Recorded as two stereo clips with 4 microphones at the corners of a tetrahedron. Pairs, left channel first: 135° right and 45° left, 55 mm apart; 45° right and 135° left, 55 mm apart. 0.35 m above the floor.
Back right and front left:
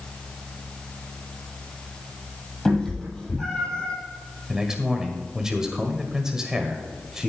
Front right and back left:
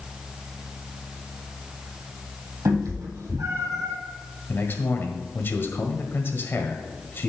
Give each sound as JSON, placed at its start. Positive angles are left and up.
{"t": 2.6, "sound": "a cat meowing", "azimuth_deg": 145, "distance_m": 3.5}
{"t": 4.5, "sound": "a man speaking", "azimuth_deg": -30, "distance_m": 1.5}